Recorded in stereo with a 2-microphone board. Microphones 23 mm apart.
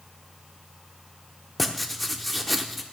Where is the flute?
No flute in this recording.